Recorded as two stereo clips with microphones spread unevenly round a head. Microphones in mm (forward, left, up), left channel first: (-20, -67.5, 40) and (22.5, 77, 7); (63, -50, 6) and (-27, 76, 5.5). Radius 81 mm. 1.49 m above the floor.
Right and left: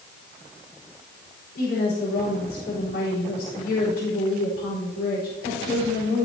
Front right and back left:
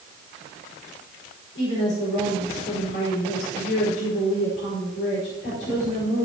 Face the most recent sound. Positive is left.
turn(degrees=-80)